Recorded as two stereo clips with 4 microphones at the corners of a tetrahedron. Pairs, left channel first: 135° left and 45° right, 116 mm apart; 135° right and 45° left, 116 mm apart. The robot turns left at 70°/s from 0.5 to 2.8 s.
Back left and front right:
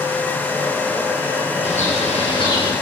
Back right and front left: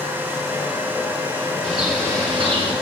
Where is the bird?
145° left, 5 m; by 2.7 s 70° left, 5 m.